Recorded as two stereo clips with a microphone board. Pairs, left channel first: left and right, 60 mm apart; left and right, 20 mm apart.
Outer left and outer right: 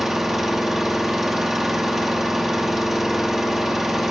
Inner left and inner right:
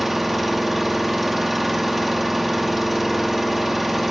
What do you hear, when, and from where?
0.0 s an engine running: 5° right (ahead or behind), 1.1 m